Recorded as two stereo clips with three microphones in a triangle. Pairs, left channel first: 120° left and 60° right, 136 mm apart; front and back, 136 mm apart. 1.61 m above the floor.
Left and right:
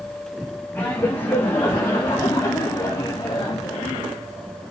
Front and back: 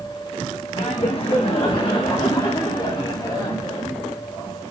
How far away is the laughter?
About 3 m.